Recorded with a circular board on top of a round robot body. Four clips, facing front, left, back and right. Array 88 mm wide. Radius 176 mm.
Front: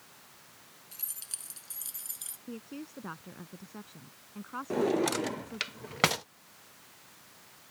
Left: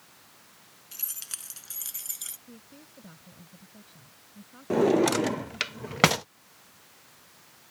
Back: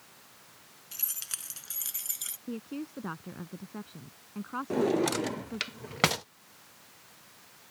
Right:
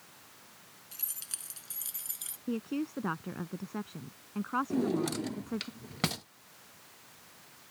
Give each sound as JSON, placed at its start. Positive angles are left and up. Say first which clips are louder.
{"t": 0.9, "sound": "keys jangling", "louder": "left 3 dB, back 5 dB", "azimuth_deg": 150}
{"t": 2.5, "sound": "a woman speaking", "louder": "right 19 dB, back 5 dB", "azimuth_deg": -100}
{"t": 4.7, "sound": "a drawer", "louder": "left 12 dB, back 1 dB", "azimuth_deg": 90}